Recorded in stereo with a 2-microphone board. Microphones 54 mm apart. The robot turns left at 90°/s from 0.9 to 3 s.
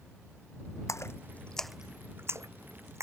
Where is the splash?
70° left (ahead or behind); by 3.0 s 65° right (ahead or behind).